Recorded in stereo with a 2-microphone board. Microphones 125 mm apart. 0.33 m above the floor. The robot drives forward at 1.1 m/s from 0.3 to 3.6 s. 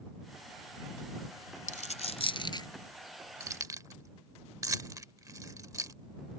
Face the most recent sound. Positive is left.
turn(degrees=-25)  # may be behind; listen again after turning